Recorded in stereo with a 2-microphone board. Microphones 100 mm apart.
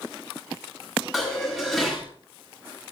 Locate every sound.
1.1 s dishes clattering: centre (ahead or behind), 9.5 m